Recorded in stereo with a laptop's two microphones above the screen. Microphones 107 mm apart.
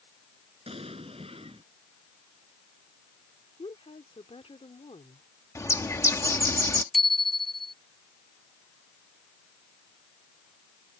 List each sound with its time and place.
0.7 s an explosion: 65° right (ahead or behind)
3.6 s a woman speaking: 65° left (ahead or behind)
5.5 s a bird: 30° left (ahead or behind)
6.9 s a bicycle bell: centre (ahead or behind)